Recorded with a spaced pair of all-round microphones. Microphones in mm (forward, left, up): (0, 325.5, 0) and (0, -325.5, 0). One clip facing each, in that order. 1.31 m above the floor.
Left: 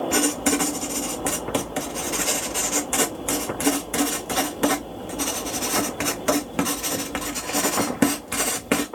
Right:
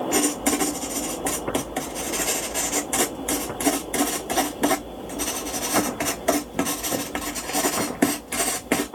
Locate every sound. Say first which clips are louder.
0.1 s writing: even; 40° left (ahead or behind), 0.7 m